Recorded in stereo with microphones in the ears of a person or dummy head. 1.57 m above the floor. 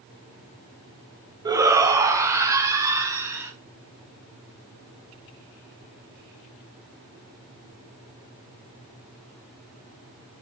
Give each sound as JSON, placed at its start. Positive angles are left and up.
{"t": 1.4, "sound": "a shout", "side_deg": -20, "distance_m": 0.8}